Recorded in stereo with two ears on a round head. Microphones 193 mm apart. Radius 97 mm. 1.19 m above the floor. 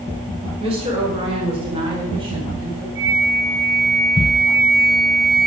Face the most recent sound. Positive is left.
turn(degrees=-25)  # may be behind; listen again after turning